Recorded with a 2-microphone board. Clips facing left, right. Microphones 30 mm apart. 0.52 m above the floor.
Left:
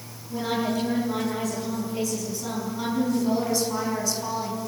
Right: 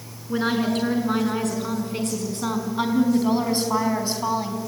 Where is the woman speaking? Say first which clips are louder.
Right 4 dB; 65° right (ahead or behind), 7.5 m; by 4.6 s 30° right (ahead or behind), 5 m.